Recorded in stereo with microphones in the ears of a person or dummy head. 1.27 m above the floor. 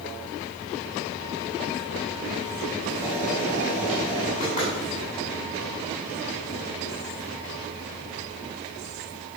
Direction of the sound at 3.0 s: 30° left (ahead or behind).